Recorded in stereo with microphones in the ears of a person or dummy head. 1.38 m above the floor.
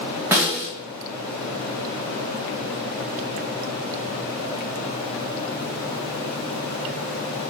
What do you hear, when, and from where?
0.3 s a snare drum: 10° right (ahead or behind), 1.3 m